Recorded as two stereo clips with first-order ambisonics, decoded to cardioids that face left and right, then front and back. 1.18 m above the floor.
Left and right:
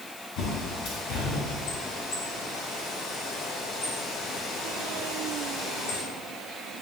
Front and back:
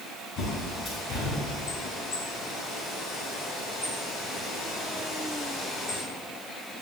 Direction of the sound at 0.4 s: 60° left.